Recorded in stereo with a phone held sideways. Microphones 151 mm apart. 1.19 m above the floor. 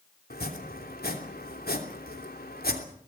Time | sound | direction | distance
0.3 | chopping | 90° left | 3 m